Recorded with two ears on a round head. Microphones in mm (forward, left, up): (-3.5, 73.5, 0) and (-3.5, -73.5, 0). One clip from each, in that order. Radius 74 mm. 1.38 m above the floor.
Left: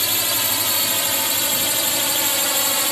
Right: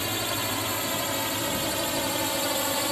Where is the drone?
75° left (ahead or behind); by 2.9 s 60° left (ahead or behind).